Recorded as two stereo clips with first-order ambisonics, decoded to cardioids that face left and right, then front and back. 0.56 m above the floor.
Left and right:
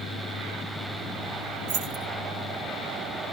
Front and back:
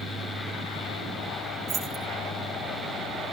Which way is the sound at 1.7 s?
115° right.